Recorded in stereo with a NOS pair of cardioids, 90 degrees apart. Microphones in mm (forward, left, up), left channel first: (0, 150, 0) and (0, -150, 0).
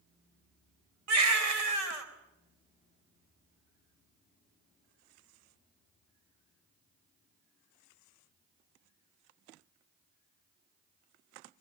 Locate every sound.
1.1 s a baby crying: 60° right, 4 m